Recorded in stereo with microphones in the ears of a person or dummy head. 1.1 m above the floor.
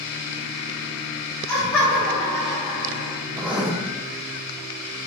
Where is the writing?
5° right (ahead or behind), 0.6 m.